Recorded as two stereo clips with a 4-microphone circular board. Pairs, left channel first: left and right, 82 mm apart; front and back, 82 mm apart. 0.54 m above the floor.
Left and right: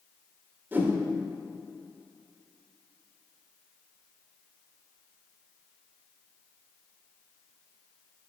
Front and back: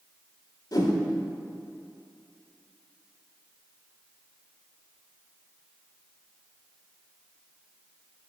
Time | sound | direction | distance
0.7 | a whoosh | 25° right | 1.3 m